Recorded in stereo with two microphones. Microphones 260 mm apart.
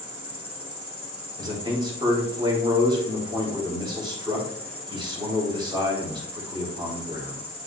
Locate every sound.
0.0 s an insect: 25° left (ahead or behind), 2.5 m
1.4 s a man speaking: 20° right (ahead or behind), 3.5 m